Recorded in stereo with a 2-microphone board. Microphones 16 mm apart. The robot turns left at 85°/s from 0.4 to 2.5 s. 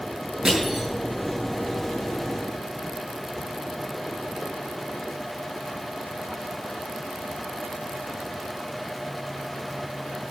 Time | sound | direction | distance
0.5 | crushing | 35° right (ahead or behind) | 5.5 m